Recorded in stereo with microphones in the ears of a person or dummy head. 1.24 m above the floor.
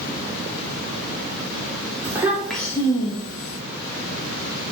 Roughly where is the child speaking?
Centre.